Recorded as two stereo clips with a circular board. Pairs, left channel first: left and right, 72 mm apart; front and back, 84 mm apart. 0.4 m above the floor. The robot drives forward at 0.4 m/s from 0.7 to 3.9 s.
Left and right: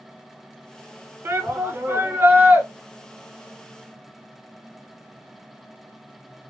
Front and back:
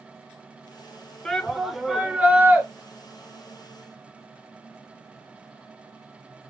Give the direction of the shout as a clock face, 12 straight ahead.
2 o'clock.